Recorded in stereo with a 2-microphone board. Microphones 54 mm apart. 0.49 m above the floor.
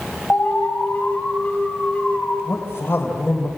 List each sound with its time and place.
0.3 s an alarm: 35° left (ahead or behind), 4 m
2.5 s a man speaking: 45° left (ahead or behind), 3 m